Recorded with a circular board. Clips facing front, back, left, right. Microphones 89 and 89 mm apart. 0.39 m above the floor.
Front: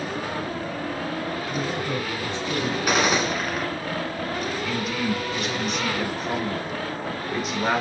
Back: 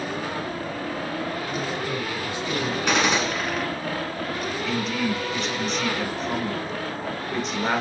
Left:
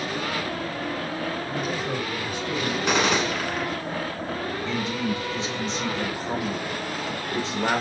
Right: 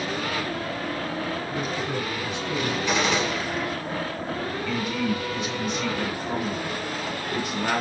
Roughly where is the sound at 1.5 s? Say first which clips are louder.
Front 1 dB, even; left.